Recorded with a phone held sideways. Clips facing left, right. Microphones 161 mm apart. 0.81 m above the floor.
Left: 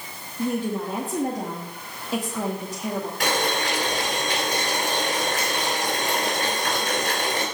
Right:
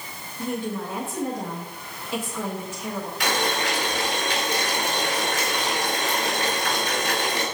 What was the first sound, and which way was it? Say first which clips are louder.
A woman speaking: left 3 dB; 35° left (ahead or behind).